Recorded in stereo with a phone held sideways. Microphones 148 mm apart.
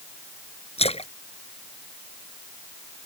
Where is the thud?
No thud in this recording.